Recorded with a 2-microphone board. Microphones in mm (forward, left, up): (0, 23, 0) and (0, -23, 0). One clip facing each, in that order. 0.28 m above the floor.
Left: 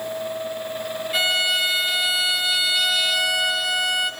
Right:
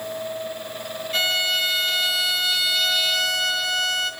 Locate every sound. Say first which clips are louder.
1.1 s a violin: left 1 dB; 10° left (ahead or behind), 0.6 m